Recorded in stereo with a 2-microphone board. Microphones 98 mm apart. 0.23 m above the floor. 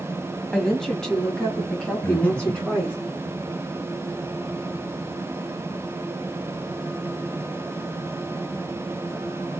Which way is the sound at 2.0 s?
15° left (ahead or behind).